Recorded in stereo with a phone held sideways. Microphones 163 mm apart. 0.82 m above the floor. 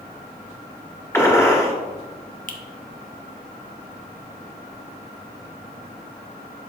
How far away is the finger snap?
About 1.0 m.